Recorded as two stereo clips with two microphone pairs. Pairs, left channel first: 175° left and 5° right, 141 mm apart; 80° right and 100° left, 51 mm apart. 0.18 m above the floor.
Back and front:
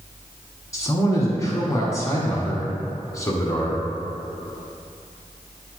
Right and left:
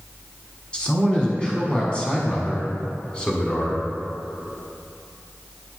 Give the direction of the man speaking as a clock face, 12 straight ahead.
5 o'clock.